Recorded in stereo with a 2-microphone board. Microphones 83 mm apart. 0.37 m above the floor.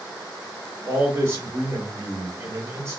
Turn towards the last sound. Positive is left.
turn(degrees=-35)  # may be behind; listen again after turning